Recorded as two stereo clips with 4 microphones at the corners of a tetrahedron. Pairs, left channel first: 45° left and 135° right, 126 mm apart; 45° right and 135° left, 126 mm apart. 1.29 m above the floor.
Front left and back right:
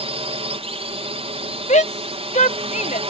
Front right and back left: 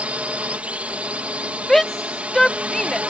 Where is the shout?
45° left.